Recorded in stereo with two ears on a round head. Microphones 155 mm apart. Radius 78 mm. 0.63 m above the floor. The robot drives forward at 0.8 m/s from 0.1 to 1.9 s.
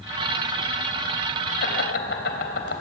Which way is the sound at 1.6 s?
60° left (ahead or behind).